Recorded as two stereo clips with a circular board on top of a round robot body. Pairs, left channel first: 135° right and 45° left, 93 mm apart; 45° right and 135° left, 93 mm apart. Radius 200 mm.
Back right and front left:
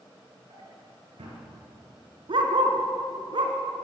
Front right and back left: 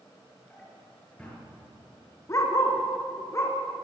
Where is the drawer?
30° left, 7 m.